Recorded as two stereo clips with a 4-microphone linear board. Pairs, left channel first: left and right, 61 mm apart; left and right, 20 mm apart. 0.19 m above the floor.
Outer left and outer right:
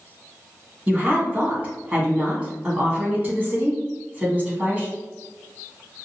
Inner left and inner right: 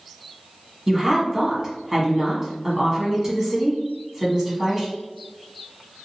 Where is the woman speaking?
25° right (ahead or behind), 1.3 m.